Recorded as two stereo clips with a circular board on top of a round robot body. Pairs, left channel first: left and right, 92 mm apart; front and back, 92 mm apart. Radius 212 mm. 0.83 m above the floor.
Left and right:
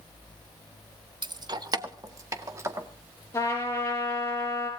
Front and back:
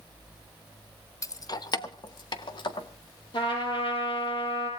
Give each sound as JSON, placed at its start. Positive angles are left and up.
{"t": 1.2, "sound": "keys jangling", "azimuth_deg": -55, "distance_m": 0.9}
{"t": 3.3, "sound": "a trumpet", "azimuth_deg": 30, "distance_m": 6.5}